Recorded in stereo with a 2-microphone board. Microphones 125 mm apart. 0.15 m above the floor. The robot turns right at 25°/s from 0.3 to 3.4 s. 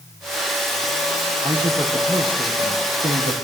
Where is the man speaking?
155° right, 4.5 m; by 3.4 s 105° right, 4.5 m.